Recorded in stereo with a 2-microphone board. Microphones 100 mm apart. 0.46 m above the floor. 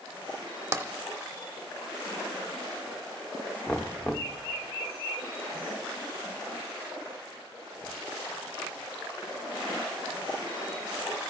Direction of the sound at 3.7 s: 10° left (ahead or behind).